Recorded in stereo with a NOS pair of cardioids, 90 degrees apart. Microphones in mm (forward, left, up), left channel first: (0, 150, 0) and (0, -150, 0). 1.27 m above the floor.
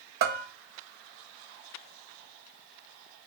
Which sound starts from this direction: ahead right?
A bell, at 0.2 s.